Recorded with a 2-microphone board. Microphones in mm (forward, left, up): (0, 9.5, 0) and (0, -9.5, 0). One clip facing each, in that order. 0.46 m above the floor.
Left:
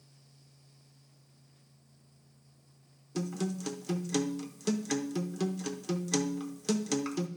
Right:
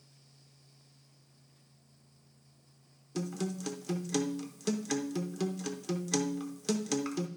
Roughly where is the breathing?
No breathing in this recording.